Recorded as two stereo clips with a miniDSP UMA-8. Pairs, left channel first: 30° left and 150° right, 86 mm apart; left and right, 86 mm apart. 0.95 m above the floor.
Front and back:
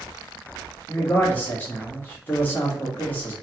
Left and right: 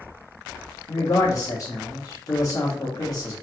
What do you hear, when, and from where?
0.9 s a man speaking: 85° left, 1.0 m